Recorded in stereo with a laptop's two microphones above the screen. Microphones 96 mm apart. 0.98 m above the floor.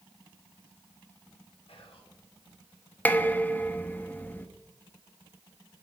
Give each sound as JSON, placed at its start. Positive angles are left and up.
{"t": 1.7, "sound": "whispering", "side_deg": 80, "distance_m": 3.0}
{"t": 3.0, "sound": "dishes clattering", "side_deg": 20, "distance_m": 0.6}